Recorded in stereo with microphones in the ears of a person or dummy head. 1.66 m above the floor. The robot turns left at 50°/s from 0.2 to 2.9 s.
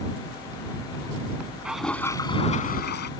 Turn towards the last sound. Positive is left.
turn(degrees=125)